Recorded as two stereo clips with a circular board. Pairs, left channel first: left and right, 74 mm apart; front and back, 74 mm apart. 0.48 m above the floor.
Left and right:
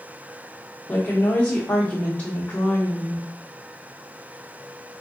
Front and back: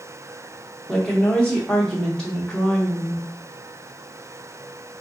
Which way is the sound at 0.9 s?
60° left.